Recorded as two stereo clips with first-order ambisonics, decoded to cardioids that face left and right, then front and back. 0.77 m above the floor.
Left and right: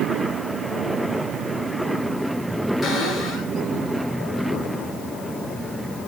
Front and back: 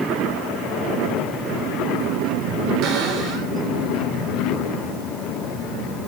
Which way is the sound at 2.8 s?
175° right.